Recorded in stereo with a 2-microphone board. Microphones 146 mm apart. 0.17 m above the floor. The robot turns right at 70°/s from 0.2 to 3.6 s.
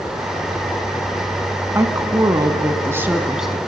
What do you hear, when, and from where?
1.8 s a woman speaking: 20° right (ahead or behind), 1.1 m; by 3.6 s centre (ahead or behind), 1.1 m